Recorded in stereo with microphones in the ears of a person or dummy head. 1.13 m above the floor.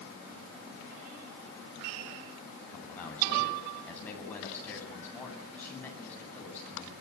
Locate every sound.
2.6 s a man speaking: 10° left (ahead or behind), 10 m